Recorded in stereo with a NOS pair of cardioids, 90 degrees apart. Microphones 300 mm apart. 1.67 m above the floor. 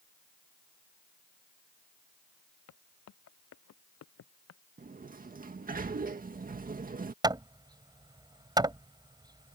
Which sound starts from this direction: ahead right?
A sliding door, at 4.8 s.